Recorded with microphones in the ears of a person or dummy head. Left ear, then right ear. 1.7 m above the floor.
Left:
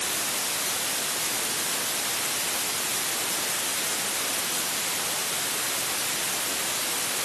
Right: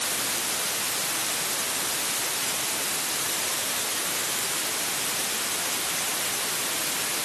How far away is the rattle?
No rattle in this recording.